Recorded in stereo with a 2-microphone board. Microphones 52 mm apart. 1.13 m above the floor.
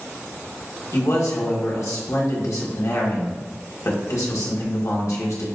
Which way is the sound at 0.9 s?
75° left (ahead or behind).